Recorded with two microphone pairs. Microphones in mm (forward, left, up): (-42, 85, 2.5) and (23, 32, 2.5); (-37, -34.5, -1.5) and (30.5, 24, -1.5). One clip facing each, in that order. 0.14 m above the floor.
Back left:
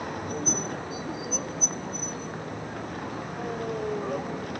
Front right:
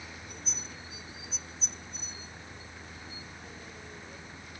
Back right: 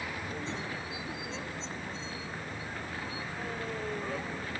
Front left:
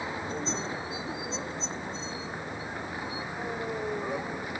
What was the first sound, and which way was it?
A vehicle, 110° left.